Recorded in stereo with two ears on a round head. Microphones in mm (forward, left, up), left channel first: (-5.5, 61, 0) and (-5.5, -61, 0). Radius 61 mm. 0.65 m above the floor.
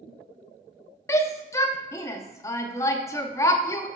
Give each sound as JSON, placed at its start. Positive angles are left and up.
{"t": 1.1, "sound": "a shout", "side_deg": 20, "distance_m": 0.7}